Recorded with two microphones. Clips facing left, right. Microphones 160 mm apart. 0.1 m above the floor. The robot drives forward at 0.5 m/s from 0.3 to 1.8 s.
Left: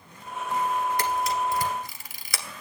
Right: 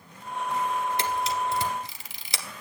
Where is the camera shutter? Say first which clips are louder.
Left 2 dB; 25° right (ahead or behind), 1.7 m.